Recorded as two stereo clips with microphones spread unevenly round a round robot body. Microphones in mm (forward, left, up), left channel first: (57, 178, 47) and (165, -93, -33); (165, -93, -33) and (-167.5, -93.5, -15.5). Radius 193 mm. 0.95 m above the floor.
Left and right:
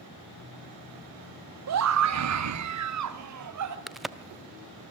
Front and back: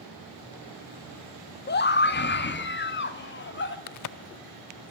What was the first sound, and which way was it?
A scream, 55° right.